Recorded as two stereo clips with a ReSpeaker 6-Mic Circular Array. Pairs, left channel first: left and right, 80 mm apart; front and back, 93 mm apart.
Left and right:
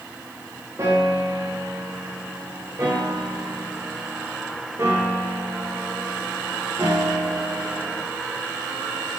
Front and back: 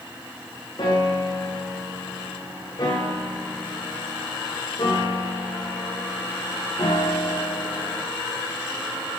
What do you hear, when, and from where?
0.8 s a piano: 40° right, 7 m